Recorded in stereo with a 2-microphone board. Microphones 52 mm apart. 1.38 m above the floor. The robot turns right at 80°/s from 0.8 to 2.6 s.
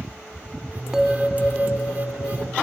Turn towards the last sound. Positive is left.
turn(degrees=120)